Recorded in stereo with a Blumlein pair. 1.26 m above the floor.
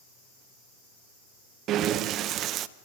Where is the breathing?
35° right, 0.9 m.